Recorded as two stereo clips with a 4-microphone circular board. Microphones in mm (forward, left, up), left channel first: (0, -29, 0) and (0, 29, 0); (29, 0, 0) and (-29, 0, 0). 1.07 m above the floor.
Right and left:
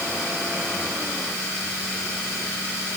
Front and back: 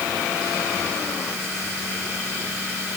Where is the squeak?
I don't hear a squeak.